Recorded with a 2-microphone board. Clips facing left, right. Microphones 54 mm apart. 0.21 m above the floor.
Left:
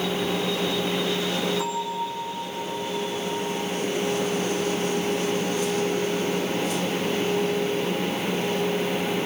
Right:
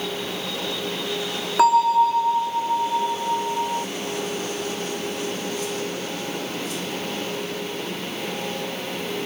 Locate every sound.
1.6 s a bell: 85° right, 0.7 m